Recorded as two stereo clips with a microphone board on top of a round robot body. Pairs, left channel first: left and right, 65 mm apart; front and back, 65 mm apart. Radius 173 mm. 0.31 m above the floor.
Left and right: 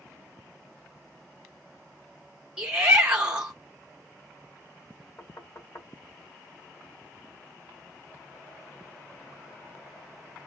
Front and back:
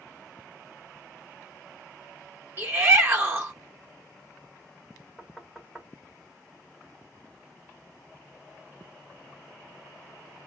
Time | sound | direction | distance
2.6 | a shout | 155° right | 1.0 m
5.2 | knocking | 100° left | 1.5 m